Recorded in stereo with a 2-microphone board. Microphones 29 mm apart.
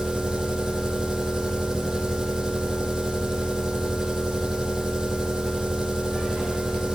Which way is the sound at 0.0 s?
25° right (ahead or behind).